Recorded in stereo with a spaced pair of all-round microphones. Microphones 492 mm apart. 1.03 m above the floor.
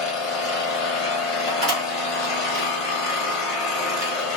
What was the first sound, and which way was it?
An engine running, 75° left (ahead or behind).